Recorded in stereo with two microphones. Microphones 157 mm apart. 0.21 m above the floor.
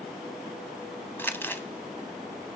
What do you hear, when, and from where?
1.2 s crumpling: 15° left (ahead or behind), 0.6 m